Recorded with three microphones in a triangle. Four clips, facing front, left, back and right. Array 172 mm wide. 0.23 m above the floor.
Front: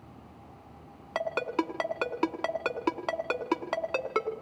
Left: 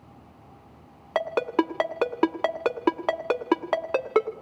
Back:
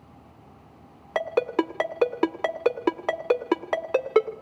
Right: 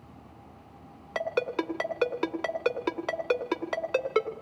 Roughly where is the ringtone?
Left.